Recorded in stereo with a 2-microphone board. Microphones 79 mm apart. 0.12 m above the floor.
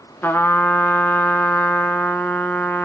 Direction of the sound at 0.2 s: 25° left (ahead or behind).